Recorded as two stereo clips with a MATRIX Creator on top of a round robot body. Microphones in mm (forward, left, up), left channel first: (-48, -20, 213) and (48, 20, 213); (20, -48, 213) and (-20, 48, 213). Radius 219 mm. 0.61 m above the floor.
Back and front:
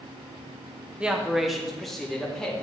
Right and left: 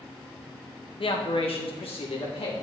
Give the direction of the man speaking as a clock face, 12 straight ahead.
2 o'clock.